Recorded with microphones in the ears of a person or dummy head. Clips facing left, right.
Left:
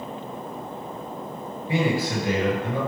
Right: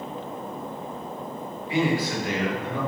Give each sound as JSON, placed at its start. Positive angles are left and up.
{"t": 1.7, "sound": "a man speaking", "side_deg": 25, "distance_m": 1.4}